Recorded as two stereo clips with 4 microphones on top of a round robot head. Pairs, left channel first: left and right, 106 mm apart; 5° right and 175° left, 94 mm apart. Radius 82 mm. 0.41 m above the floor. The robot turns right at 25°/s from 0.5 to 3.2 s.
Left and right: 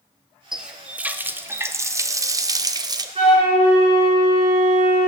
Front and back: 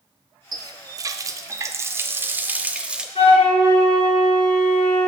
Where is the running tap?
170° right, 0.5 m; by 3.0 s 110° right, 0.5 m.